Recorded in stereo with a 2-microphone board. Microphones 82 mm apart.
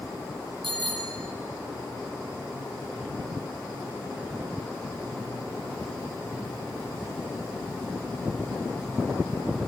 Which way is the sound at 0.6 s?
80° right.